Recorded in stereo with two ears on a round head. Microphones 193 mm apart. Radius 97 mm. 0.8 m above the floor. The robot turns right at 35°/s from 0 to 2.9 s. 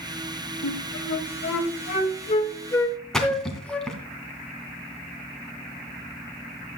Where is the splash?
5° left (ahead or behind), 2.5 m.